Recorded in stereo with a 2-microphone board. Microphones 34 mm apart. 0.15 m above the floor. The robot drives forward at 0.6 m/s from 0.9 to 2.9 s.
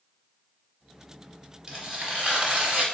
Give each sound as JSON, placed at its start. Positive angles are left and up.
{"t": 1.7, "sound": "tearing paper", "side_deg": -25, "distance_m": 1.3}